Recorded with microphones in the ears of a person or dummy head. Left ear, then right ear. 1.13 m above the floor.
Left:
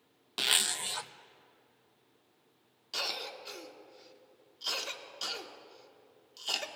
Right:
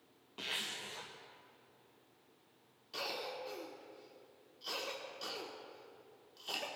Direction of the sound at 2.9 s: 35° left (ahead or behind).